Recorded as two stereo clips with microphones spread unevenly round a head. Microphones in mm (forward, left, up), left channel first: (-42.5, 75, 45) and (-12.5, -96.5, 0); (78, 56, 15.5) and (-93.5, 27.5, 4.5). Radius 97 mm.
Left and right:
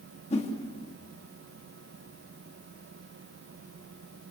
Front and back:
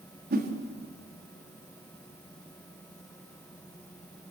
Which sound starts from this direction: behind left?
A whoosh, at 0.3 s.